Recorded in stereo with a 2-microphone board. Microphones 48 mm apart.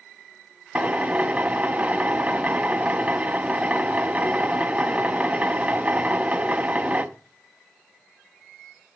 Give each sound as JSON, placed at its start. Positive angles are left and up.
{"t": 0.8, "sound": "a drill", "side_deg": -30, "distance_m": 1.0}